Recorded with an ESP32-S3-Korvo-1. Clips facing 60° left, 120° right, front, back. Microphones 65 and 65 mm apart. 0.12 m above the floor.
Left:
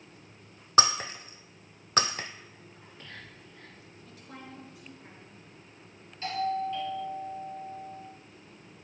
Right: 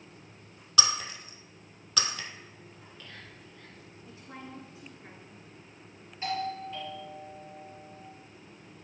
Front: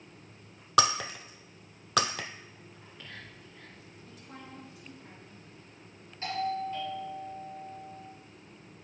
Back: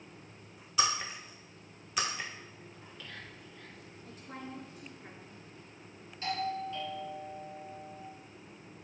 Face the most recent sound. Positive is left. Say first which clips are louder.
# left 3 dB, front 3 dB
turn(degrees=-50)